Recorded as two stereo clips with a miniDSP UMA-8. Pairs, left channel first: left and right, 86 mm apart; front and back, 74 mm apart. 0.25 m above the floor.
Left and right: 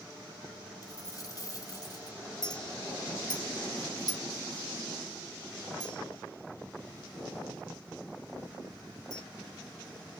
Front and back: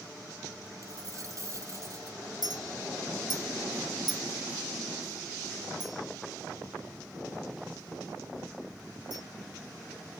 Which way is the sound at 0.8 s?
135° left.